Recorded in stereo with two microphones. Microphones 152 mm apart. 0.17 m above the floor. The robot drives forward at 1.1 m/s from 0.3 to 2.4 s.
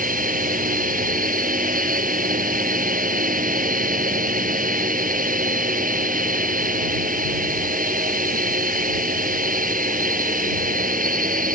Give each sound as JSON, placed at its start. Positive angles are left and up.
{"t": 0.0, "sound": "a drone", "side_deg": -65}